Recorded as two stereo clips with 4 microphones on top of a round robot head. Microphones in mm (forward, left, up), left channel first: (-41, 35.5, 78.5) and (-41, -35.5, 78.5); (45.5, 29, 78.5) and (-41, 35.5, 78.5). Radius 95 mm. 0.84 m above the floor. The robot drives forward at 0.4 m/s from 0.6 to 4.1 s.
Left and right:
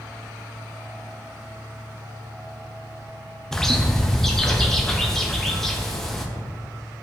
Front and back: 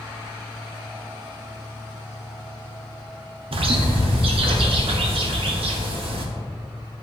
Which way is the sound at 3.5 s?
175° left.